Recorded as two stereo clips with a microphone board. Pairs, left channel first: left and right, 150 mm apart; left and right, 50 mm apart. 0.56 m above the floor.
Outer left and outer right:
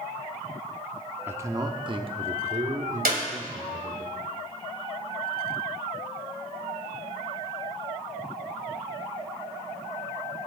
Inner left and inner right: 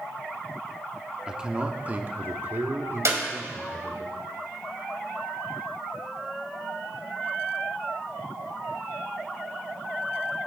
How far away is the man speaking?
About 0.9 m.